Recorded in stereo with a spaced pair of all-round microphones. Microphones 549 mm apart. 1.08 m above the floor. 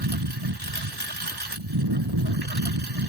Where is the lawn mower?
50° right (ahead or behind).